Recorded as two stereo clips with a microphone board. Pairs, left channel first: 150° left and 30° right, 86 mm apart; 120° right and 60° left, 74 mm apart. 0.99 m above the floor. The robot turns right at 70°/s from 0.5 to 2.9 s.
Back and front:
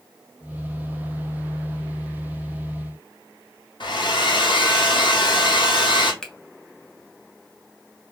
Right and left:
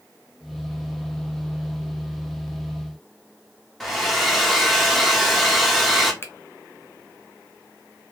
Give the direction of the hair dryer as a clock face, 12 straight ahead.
7 o'clock.